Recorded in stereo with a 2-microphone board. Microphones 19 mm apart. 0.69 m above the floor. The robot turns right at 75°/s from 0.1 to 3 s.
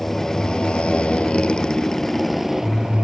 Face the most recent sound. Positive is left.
turn(degrees=-125)